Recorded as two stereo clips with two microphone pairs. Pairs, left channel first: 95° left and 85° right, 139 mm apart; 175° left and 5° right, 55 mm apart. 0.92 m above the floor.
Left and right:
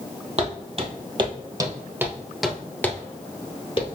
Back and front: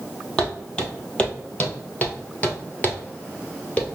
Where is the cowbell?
No cowbell in this recording.